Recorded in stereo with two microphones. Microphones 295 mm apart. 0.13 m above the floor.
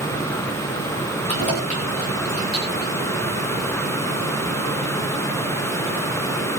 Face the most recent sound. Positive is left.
turn(degrees=20)  # may be behind; listen again after turning